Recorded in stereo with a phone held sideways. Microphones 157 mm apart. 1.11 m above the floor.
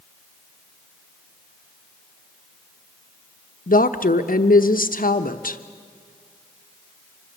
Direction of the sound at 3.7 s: 65° left (ahead or behind).